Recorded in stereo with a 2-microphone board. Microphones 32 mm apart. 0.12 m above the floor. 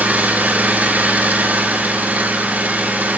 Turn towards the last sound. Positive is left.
turn(degrees=-65)  # may be behind; listen again after turning